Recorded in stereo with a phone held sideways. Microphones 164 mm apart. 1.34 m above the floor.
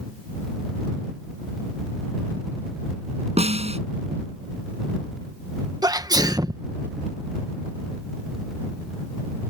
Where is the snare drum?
40° right (ahead or behind).